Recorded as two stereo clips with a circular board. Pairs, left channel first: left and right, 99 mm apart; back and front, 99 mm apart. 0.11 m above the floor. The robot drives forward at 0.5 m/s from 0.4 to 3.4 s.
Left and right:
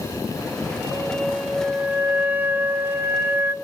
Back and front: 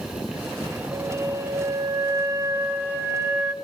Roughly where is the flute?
Ahead.